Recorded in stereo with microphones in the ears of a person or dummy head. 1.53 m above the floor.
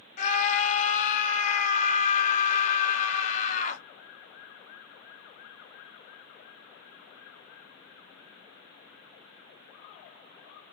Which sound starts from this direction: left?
A scream, at 0.2 s.